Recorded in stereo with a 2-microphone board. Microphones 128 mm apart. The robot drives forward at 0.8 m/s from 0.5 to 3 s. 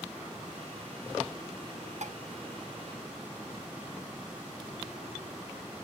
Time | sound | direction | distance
2.0 | dishes clattering | 65° right (ahead or behind) | 0.6 m